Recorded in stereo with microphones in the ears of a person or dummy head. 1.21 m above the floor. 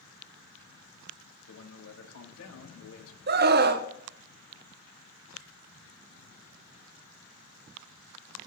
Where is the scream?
45° right (ahead or behind), 0.8 m.